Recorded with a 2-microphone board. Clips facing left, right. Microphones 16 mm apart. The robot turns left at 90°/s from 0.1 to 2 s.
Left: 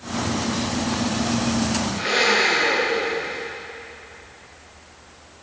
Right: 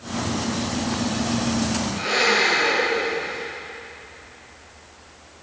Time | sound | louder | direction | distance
1.9 | a blender | even | 10° right (ahead or behind) | 5.5 m